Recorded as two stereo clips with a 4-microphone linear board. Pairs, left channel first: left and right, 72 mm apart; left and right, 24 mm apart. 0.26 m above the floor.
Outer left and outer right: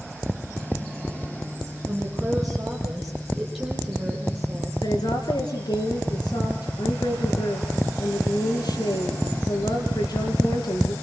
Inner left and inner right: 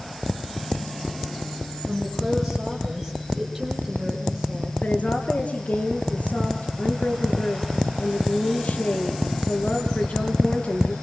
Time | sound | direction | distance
1.9 | a woman speaking | 5° right (ahead or behind) | 7.5 m
4.8 | a woman speaking | 75° left (ahead or behind) | 5 m